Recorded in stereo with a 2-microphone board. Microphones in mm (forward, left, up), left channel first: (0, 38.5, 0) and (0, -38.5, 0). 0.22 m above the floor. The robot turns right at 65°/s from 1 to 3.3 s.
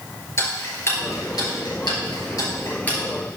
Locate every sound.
0.4 s ticking: 35° left (ahead or behind), 2.5 m; by 3.0 s 15° left (ahead or behind), 2.5 m